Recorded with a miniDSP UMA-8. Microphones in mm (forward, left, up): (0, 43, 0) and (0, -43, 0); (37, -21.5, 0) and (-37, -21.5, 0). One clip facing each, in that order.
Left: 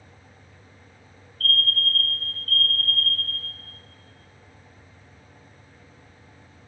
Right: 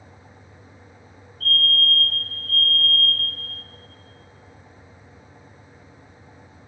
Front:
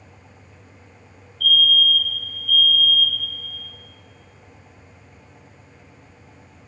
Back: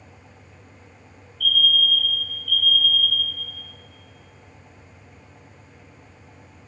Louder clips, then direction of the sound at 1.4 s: Right 3 dB, front 3 dB; 15° right.